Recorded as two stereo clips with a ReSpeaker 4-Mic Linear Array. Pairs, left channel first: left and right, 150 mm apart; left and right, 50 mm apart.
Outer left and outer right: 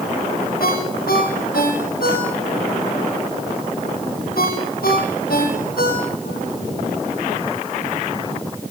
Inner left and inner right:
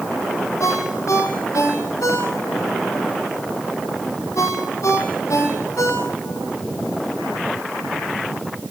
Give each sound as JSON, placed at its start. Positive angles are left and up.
{"t": 0.6, "sound": "a ringtone", "side_deg": 85, "distance_m": 7.5}